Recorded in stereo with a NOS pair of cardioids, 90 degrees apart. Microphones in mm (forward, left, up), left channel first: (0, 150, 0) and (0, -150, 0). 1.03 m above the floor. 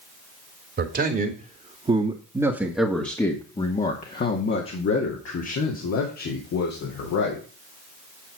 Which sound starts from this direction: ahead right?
A man speaking, at 0.8 s.